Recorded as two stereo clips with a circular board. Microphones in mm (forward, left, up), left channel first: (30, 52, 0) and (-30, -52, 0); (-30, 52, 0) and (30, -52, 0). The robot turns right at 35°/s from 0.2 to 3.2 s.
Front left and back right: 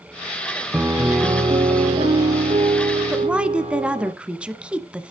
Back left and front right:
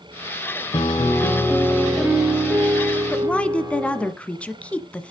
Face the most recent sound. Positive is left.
turn(degrees=175)